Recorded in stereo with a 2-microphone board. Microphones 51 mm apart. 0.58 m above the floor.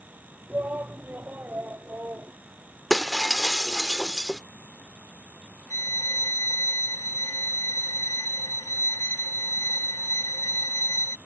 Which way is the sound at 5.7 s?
55° left (ahead or behind).